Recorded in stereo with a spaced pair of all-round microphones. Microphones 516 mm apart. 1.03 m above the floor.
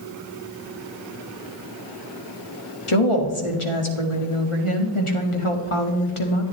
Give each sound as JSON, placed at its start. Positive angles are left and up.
{"t": 2.9, "sound": "a woman speaking", "side_deg": 75, "distance_m": 1.7}